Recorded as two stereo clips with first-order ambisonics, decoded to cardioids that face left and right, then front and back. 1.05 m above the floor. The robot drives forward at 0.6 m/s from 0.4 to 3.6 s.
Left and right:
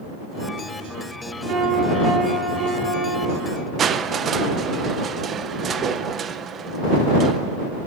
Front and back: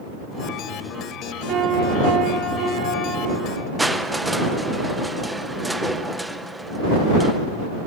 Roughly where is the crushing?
Right.